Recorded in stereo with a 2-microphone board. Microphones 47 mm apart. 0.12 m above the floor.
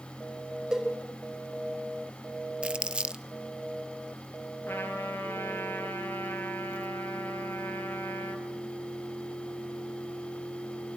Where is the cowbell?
5° right (ahead or behind), 5.5 m.